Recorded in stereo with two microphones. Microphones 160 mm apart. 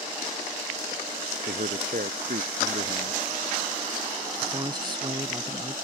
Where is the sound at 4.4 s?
30° right (ahead or behind).